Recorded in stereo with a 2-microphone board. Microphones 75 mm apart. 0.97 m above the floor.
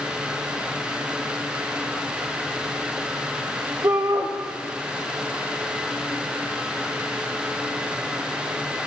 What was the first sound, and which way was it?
A shout, 50° right (ahead or behind).